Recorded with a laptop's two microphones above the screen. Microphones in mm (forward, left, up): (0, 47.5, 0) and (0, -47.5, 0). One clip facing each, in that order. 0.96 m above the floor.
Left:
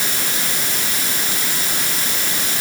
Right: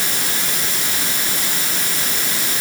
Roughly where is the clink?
No clink in this recording.